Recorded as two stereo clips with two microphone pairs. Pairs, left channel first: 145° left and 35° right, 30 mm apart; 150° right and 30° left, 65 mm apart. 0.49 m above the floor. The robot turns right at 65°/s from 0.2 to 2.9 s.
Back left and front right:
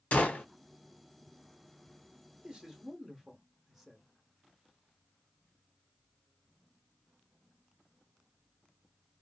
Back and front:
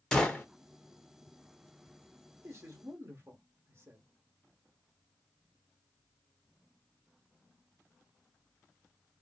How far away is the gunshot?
About 0.8 m.